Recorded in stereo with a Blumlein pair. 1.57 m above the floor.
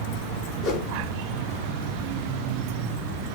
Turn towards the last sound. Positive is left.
turn(degrees=35)